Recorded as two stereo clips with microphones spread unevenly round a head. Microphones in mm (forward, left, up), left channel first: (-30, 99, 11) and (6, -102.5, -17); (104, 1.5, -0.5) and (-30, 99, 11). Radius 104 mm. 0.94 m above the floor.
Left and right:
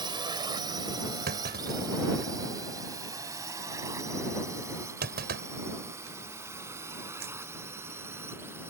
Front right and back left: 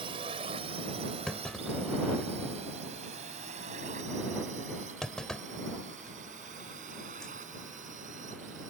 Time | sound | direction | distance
0.0 | a drone | 150° right | ?
1.3 | a clunk | 125° right | ?